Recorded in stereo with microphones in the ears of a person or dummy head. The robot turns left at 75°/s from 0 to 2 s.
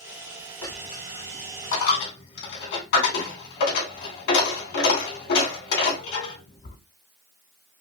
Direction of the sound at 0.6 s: 5° left (ahead or behind).